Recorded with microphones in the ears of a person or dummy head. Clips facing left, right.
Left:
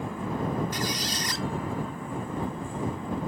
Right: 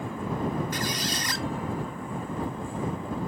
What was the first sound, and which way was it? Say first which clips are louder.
A squeak: even; 50° right (ahead or behind).